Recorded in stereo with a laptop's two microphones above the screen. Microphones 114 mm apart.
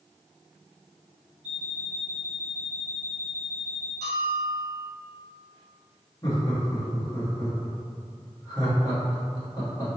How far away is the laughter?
About 1.0 m.